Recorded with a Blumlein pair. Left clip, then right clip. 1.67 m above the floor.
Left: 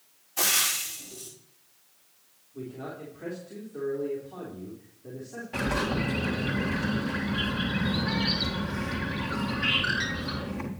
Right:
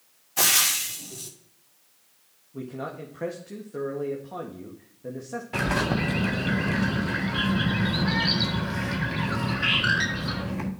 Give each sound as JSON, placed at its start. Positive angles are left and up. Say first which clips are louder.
{"t": 0.4, "sound": "frying", "louder": "right 4 dB", "azimuth_deg": -20, "distance_m": 2.0}
{"t": 2.5, "sound": "a man speaking", "louder": "right 4 dB", "azimuth_deg": -55, "distance_m": 2.0}
{"t": 5.5, "sound": "a bird", "louder": "right 3 dB", "azimuth_deg": -15, "distance_m": 1.5}